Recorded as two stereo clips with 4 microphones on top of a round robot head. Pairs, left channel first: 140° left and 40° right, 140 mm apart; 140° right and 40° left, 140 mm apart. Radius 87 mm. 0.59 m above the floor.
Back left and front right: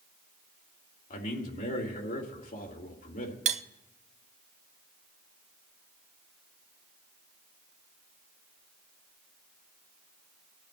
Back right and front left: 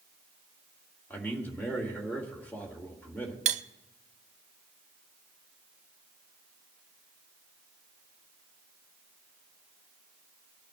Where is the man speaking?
140° left, 2.5 m.